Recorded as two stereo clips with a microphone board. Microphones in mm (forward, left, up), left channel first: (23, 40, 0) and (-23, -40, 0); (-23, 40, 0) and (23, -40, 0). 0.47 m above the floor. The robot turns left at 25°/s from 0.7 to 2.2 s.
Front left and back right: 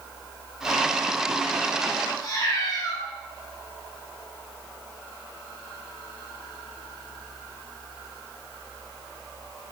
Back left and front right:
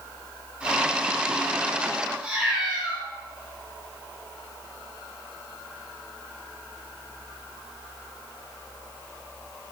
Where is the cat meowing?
20° left, 0.7 m.